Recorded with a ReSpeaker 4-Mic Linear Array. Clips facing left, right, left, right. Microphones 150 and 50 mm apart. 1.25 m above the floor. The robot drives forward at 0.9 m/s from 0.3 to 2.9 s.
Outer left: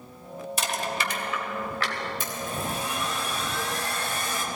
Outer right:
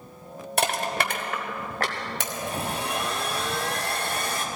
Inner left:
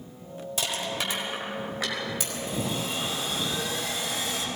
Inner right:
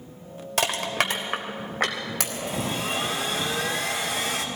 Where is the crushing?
65° right (ahead or behind), 1.7 m; by 2.0 s 45° right (ahead or behind), 2 m.